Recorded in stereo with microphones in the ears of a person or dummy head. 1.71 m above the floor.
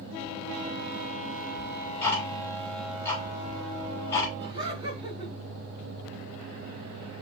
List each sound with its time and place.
1.6 s ticking: 15° left (ahead or behind), 3 m
4.4 s laughter: 25° right (ahead or behind), 1.9 m